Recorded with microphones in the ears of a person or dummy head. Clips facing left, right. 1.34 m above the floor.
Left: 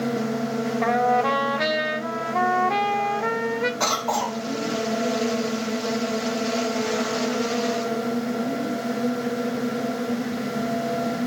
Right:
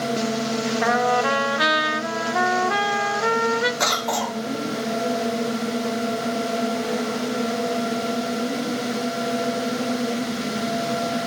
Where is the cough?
20° right (ahead or behind), 1.4 m.